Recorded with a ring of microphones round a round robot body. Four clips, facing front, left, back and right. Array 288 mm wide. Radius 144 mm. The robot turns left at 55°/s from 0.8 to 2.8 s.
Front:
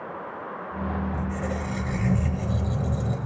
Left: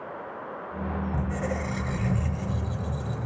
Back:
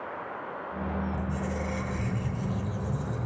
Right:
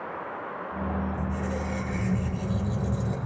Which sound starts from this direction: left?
A squeak, at 1.1 s.